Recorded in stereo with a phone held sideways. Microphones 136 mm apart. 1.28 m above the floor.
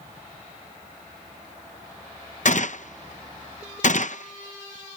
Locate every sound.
2.5 s a gunshot: 65° left (ahead or behind)